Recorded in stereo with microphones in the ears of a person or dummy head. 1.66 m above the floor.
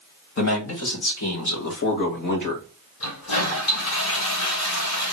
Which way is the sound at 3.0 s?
85° left.